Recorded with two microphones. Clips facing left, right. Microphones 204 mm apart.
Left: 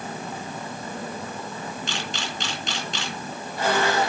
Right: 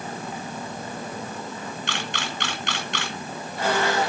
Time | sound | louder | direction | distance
1.9 | a camera shutter | even | 65° right (ahead or behind) | 3.5 m